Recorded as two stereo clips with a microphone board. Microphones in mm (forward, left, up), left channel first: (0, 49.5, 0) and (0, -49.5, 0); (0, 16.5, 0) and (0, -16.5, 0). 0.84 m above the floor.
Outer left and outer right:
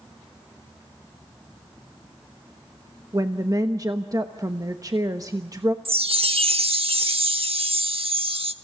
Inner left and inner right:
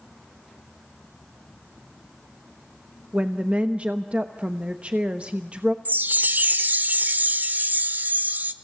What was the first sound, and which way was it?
A woman speaking, 35° right (ahead or behind).